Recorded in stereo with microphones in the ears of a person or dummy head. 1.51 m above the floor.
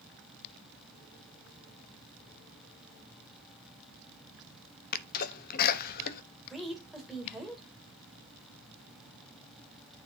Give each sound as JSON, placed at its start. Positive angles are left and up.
{"t": 4.9, "sound": "a sneeze", "side_deg": 50, "distance_m": 0.9}
{"t": 6.5, "sound": "a woman speaking", "side_deg": 5, "distance_m": 2.0}